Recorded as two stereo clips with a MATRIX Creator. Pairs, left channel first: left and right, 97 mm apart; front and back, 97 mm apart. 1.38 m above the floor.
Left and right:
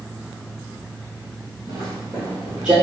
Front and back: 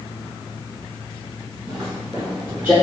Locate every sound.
1.7 s footsteps: 105° right, 1.6 m; by 2.7 s 150° right, 1.4 m